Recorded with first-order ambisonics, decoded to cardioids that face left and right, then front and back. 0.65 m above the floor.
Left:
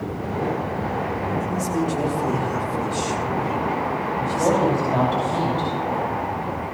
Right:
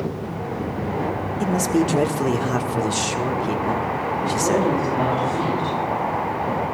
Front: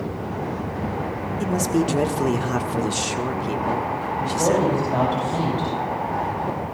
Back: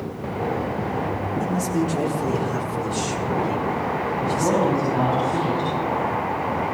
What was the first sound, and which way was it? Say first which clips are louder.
A man speaking: right 3 dB, front 4 dB; 45° right.